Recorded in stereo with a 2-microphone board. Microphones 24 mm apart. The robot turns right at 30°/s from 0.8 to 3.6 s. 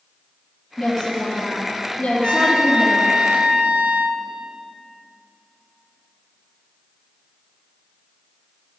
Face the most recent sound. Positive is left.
turn(degrees=-105)